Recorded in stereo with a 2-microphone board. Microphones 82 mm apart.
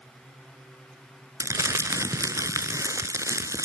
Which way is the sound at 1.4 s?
40° right (ahead or behind).